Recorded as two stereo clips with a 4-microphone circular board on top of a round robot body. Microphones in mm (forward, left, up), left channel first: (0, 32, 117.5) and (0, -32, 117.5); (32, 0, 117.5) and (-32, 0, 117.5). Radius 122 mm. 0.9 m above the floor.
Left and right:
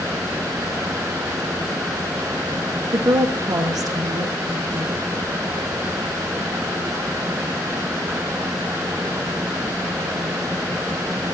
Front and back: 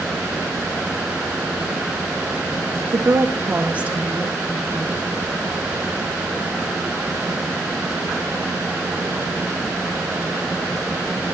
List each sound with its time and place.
2.9 s a woman speaking: 130° right, 1.1 m; by 5.1 s 100° right, 2.5 m